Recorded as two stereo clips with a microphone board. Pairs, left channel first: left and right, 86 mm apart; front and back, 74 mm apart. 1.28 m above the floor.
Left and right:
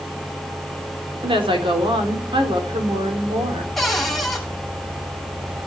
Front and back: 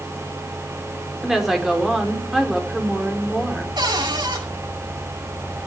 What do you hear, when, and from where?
1.2 s a woman speaking: 95° right, 4 m
3.8 s a cupboard door: straight behind, 7 m